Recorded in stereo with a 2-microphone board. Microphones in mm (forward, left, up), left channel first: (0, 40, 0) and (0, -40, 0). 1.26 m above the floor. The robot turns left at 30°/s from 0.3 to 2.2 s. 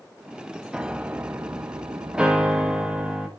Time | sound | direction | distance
0.7 | a piano | 10° right | 0.8 m
2.1 | a piano | 10° right (ahead or behind) | 1.8 m